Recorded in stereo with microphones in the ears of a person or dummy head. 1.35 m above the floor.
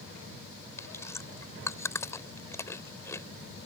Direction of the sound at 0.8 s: 15° left (ahead or behind).